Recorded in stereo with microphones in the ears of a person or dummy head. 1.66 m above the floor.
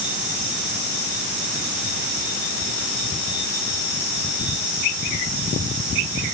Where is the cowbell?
I don't hear a cowbell.